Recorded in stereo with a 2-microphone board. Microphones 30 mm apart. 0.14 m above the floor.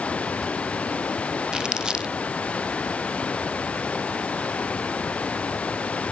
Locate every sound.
0.0 s running water: 45° left (ahead or behind)
1.5 s crumpling: 30° right (ahead or behind)